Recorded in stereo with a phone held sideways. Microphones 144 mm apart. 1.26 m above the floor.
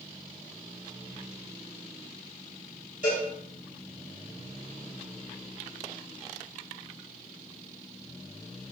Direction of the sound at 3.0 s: 60° left (ahead or behind).